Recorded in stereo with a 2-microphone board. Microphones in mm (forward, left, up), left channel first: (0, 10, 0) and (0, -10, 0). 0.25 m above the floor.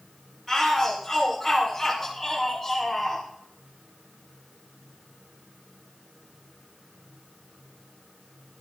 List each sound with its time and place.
0.5 s a shout: 10° left (ahead or behind), 2.5 m